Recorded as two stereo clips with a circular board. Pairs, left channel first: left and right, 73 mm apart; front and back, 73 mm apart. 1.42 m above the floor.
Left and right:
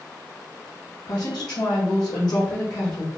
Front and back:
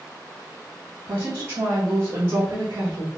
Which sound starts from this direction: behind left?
A woman speaking, at 1.1 s.